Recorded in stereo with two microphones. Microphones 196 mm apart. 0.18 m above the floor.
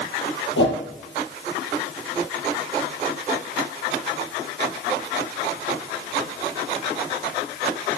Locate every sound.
0.6 s a whoosh: 75° left (ahead or behind), 3.5 m